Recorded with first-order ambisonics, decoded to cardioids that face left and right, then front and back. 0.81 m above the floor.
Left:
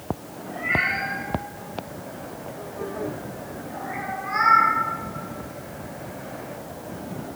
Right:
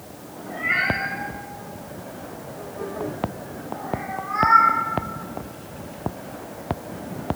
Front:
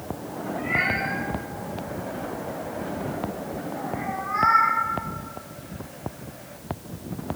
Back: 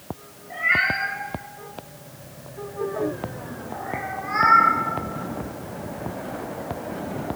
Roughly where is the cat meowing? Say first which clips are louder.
Right 1 dB, back 4 dB; behind.